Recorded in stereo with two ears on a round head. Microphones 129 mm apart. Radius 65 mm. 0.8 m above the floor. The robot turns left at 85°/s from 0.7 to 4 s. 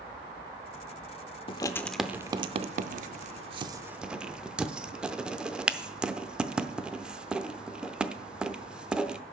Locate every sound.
1.5 s writing: 35° left (ahead or behind), 0.5 m; by 9.2 s 5° right (ahead or behind), 0.5 m